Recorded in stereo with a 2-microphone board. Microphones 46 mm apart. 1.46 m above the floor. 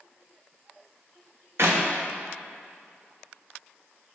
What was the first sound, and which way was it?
A clap, 65° right (ahead or behind).